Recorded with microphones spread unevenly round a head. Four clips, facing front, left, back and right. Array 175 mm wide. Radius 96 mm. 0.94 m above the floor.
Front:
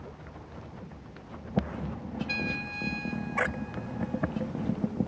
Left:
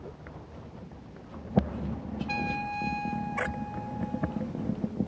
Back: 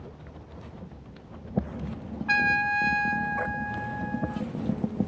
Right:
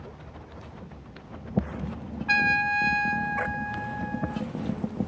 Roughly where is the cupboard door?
No cupboard door in this recording.